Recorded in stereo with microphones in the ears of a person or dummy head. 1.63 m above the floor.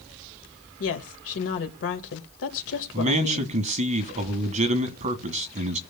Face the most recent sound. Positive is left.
turn(degrees=-40)  # may be behind; listen again after turning